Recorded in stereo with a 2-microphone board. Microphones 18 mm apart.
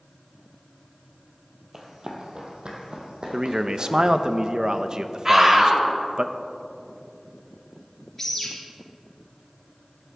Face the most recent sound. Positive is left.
turn(degrees=15)  # may be behind; listen again after turning